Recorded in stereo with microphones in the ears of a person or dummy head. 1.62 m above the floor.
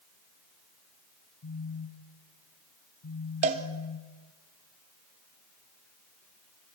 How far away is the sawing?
I don't hear sawing.